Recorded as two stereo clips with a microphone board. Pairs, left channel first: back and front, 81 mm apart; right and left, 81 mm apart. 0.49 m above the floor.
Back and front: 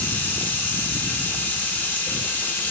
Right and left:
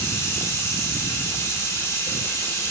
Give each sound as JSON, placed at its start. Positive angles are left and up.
{"t": 0.0, "sound": "running water", "azimuth_deg": -125, "distance_m": 1.1}